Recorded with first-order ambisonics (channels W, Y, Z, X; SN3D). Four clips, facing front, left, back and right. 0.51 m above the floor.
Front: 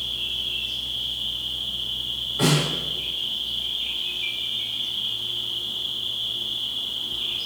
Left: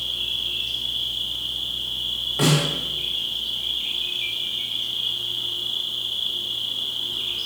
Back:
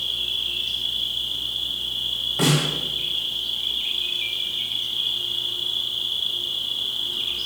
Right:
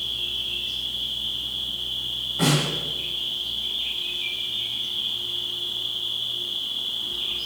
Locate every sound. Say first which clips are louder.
0.0 s an insect: left 2 dB, back 2 dB; 140° left, 0.9 m
2.4 s a snare drum: left 1 dB, even; 135° left, 1.8 m